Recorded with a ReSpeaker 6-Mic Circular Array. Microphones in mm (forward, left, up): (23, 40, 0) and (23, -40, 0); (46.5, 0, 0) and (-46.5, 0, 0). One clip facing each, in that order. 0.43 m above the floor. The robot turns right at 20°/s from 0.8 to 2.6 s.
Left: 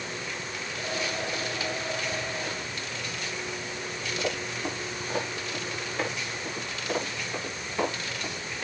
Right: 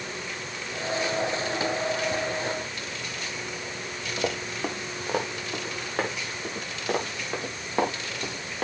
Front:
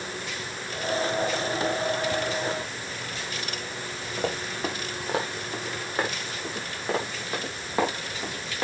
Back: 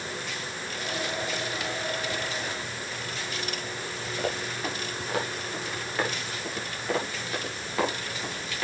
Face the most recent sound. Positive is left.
turn(degrees=-60)